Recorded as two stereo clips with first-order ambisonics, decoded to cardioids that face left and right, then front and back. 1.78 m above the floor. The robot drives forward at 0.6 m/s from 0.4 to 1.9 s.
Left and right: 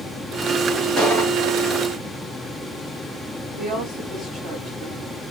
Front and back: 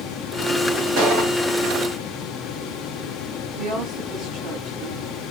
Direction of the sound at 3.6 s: 160° right.